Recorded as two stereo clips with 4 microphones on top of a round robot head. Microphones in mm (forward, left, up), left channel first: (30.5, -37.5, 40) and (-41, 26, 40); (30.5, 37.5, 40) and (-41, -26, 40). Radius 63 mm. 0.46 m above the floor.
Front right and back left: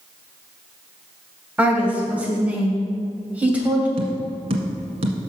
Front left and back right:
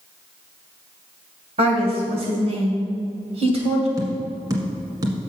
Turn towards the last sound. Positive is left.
turn(degrees=165)